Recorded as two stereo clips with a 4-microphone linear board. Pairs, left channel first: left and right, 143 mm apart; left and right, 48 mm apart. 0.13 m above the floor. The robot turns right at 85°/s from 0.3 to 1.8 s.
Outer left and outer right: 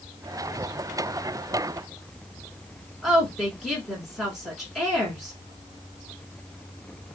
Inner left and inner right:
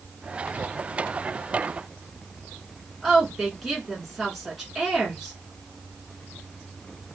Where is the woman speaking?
Centre (ahead or behind), 1.3 m.